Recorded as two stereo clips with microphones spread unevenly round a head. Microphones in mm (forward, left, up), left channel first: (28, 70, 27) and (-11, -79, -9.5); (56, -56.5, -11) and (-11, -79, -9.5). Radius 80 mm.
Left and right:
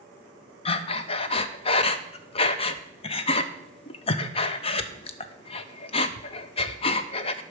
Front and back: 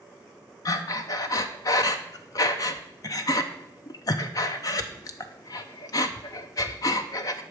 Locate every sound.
0.7 s breathing: 45° left, 0.6 m